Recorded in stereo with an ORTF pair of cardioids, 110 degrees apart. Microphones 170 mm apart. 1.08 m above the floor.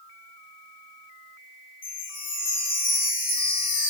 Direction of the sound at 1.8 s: 55° left.